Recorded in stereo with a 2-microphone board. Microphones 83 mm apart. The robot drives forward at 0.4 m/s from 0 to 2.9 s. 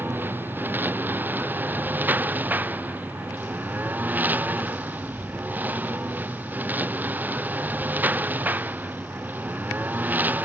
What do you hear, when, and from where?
0.0 s a lawn mower: 25° right (ahead or behind); by 10.5 s 20° right (ahead or behind)